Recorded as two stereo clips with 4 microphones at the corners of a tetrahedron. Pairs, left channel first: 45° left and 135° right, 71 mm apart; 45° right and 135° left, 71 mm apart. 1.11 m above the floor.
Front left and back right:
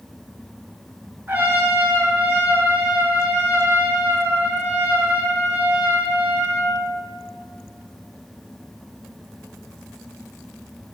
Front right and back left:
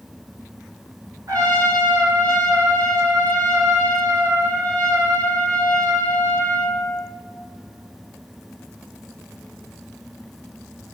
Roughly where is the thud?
I don't hear a thud.